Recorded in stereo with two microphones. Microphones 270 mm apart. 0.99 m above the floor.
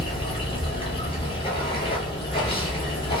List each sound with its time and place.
0.0 s running water: 20° left (ahead or behind), 0.9 m